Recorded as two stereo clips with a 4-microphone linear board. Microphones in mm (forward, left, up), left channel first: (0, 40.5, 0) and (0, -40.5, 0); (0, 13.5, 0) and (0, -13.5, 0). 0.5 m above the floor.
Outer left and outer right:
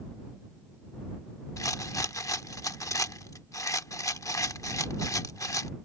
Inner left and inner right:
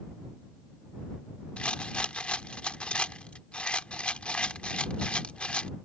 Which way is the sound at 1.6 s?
40° left (ahead or behind).